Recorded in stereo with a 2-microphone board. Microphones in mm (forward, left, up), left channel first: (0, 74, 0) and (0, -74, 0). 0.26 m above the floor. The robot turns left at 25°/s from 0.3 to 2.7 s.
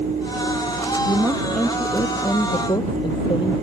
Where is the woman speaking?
170° right; by 3.5 s 150° left.